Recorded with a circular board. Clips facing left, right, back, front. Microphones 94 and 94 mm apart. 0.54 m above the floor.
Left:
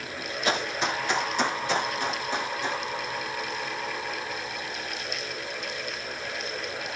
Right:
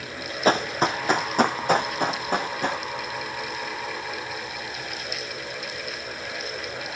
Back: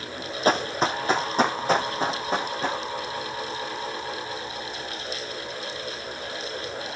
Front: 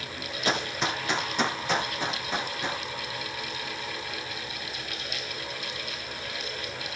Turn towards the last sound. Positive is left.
turn(degrees=-125)